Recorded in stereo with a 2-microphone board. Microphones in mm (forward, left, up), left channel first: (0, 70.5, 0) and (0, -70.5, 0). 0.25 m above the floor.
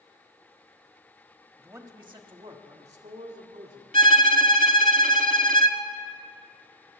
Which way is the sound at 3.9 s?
80° right.